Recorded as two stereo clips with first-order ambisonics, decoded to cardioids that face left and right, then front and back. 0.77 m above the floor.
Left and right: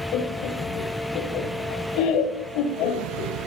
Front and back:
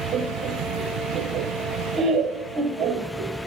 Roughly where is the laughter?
Behind left.